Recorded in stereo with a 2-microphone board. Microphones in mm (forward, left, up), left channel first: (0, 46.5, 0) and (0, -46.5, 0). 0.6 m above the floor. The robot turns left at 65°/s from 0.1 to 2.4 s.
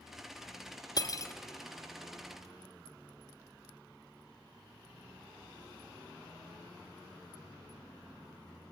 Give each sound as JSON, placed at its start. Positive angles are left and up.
{"t": 1.0, "sound": "cutlery clinking", "side_deg": 45, "distance_m": 0.6}